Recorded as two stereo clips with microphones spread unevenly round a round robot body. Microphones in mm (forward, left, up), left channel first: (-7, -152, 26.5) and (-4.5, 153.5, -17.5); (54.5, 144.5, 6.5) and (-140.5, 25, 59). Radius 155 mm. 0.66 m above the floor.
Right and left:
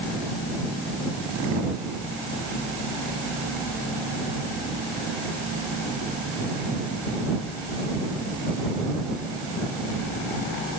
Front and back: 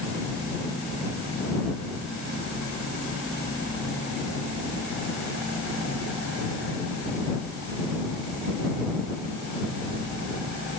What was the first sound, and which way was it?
Only background noise.